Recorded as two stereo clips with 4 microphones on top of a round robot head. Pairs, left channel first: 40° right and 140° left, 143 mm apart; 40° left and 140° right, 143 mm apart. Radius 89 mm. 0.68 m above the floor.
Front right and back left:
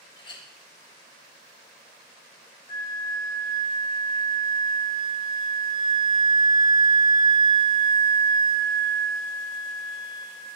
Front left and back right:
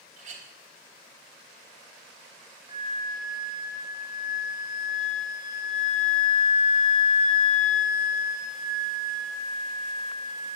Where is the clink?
100° right, 1.5 m.